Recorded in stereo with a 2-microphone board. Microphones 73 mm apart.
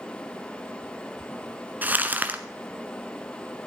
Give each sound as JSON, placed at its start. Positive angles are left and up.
{"t": 1.8, "sound": "crumpling", "side_deg": -25, "distance_m": 1.0}